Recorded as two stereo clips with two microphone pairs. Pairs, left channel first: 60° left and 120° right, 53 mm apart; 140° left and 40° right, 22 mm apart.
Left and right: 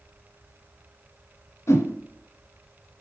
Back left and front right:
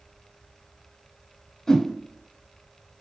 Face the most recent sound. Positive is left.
turn(degrees=75)